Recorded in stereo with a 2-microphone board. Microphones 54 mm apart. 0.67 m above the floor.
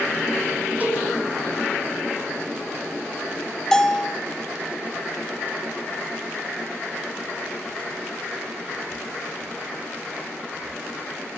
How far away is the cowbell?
About 5 m.